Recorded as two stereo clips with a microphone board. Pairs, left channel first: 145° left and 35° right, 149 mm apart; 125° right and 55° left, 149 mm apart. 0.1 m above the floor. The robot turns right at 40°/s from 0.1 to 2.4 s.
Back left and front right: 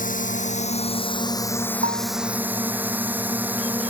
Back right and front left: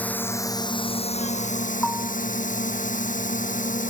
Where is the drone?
155° left; by 3.9 s 110° right.